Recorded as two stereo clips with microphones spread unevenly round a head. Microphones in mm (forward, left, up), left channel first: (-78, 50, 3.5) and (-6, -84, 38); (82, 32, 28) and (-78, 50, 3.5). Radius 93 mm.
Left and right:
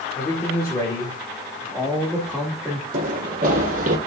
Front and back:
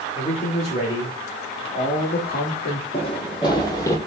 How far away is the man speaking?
About 2.5 m.